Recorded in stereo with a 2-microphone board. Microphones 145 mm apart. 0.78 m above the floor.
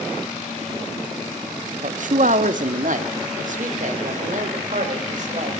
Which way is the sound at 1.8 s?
60° right (ahead or behind).